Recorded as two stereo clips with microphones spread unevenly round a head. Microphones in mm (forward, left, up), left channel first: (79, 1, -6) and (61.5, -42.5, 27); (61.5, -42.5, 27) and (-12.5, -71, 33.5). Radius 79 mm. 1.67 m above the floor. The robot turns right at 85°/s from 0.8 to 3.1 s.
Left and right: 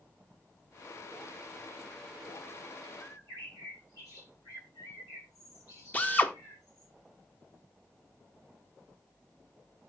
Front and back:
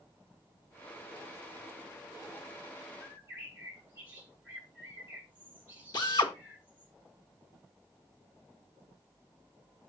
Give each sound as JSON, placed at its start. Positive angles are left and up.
{"t": 3.0, "sound": "a bird", "azimuth_deg": 90, "distance_m": 5.5}
{"t": 5.9, "sound": "a drill", "azimuth_deg": 0, "distance_m": 1.7}